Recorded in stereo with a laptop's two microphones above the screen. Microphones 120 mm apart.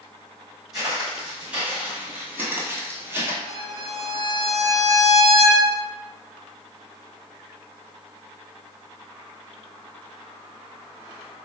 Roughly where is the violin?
Left.